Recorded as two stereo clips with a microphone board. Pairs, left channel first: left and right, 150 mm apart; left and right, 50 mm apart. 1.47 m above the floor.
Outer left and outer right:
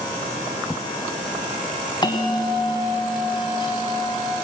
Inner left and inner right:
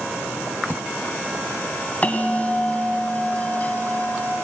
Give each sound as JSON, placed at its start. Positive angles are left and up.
{"t": 2.0, "sound": "a bell", "side_deg": 30, "distance_m": 2.5}